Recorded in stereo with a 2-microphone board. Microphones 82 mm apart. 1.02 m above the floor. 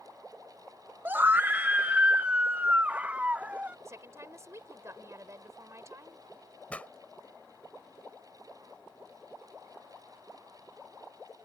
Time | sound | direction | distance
1.1 | a scream | 20° right (ahead or behind) | ?
3.9 | a woman speaking | 35° right (ahead or behind) | ?
6.7 | a pop | 15° left (ahead or behind) | ?